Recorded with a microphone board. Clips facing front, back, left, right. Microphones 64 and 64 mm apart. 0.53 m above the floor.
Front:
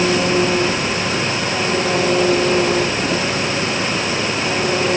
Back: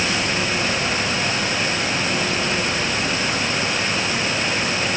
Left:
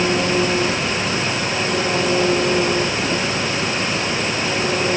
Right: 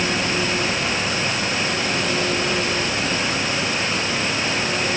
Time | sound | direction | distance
0.0 | an engine running | 30° left | ?